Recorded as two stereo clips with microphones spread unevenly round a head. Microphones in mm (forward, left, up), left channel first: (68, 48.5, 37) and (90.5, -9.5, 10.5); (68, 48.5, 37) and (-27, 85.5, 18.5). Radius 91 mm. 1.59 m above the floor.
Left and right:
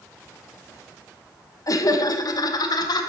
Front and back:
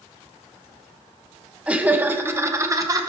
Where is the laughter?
80° left, 2.5 m; by 3.1 s 105° left, 3 m.